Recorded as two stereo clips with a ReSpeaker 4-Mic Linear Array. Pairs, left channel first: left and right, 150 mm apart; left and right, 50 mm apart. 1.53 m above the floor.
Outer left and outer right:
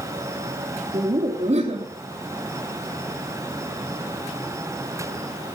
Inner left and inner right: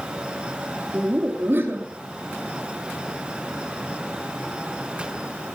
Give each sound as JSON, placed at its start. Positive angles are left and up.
{"t": 0.9, "sound": "laughter", "side_deg": -45, "distance_m": 2.5}